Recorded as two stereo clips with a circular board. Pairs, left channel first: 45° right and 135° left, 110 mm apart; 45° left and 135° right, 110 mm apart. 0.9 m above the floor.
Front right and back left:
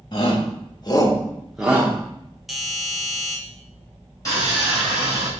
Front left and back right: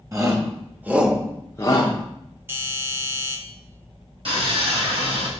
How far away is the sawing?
About 4 m.